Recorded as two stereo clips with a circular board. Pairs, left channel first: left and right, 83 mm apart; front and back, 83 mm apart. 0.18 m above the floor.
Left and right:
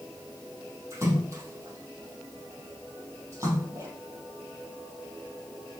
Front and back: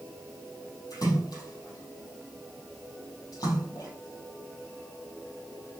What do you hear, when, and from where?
0.9 s a splash: 35° right, 4 m